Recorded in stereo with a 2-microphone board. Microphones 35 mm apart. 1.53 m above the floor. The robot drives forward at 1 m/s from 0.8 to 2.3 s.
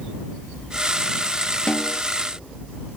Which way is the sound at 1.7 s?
30° left (ahead or behind).